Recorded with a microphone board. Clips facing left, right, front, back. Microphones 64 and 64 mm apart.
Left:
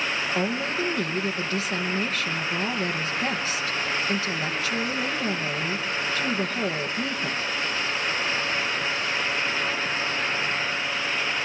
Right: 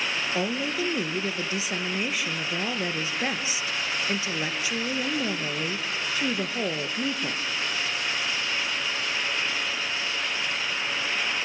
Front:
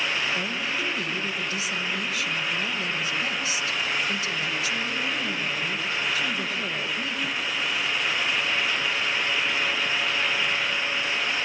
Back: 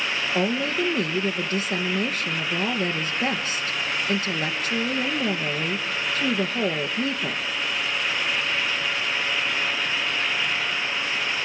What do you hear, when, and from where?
0.3 s a woman speaking: 160° right, 2.5 m